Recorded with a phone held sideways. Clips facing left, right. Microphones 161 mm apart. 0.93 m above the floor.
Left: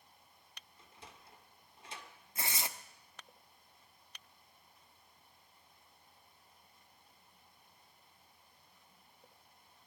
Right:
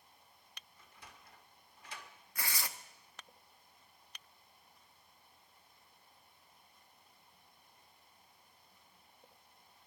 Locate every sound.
0.8 s a sliding door: 25° left (ahead or behind), 1.3 m
2.4 s tearing paper: 25° left (ahead or behind), 0.6 m